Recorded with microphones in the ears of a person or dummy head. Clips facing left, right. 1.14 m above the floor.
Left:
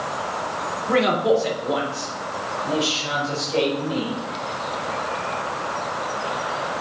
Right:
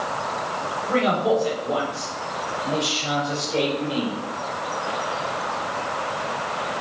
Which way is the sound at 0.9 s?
35° left (ahead or behind).